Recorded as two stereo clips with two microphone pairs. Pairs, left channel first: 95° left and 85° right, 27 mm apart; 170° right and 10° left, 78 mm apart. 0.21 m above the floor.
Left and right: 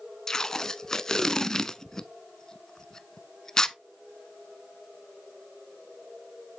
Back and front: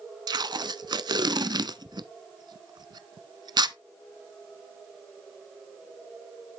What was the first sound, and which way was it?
Tape being pulled, 30° left.